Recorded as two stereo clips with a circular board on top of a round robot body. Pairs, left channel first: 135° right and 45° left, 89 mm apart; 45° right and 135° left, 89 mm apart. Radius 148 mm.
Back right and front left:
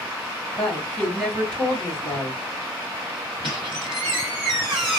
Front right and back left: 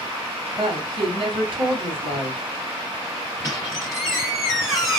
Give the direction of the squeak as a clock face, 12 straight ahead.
9 o'clock.